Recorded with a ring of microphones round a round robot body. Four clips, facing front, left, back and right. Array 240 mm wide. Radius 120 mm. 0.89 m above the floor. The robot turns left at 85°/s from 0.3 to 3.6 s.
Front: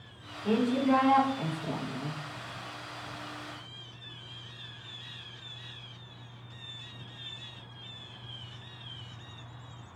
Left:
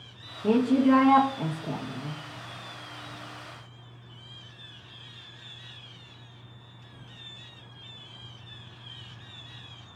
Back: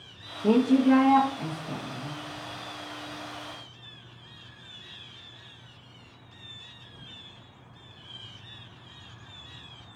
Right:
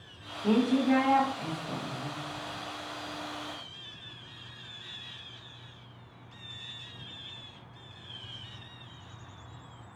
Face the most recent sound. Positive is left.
turn(degrees=-105)